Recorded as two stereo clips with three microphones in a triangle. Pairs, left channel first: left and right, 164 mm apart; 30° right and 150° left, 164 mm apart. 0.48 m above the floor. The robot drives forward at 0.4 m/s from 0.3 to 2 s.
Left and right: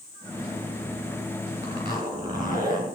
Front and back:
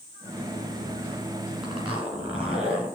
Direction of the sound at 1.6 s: 155° right.